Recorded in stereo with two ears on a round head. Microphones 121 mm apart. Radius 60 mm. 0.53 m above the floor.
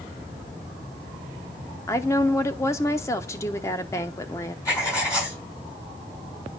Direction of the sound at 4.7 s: 25° left (ahead or behind).